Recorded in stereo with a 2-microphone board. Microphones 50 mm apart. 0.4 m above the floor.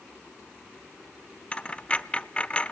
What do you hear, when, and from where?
1.5 s a dropped coin: 25° left (ahead or behind), 0.5 m